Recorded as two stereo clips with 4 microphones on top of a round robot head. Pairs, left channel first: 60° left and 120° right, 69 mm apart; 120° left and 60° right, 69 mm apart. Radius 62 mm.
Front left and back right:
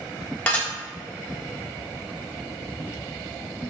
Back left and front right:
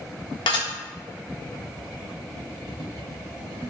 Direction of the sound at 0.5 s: 135° left.